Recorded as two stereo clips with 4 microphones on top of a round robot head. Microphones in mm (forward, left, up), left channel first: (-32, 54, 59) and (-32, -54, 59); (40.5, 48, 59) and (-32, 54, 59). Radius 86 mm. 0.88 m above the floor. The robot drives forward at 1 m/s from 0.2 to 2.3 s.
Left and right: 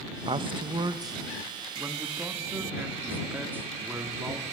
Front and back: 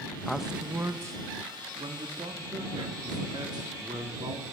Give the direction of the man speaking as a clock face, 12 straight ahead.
3 o'clock.